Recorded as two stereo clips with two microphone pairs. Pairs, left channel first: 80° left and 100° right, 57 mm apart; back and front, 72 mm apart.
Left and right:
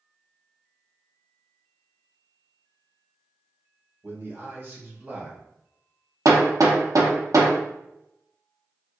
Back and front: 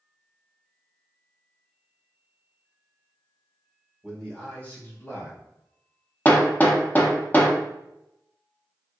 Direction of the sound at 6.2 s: 120° right.